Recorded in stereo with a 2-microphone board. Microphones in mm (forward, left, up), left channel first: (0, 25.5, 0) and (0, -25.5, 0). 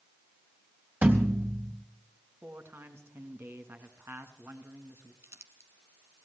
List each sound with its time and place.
1.0 s a thud: 35° right (ahead or behind), 3 m
2.4 s a man speaking: 50° right (ahead or behind), 3 m
5.2 s crumpling: 55° right (ahead or behind), 2.0 m